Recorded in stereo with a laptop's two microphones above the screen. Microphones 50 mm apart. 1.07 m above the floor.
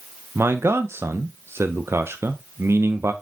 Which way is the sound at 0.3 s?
65° right (ahead or behind).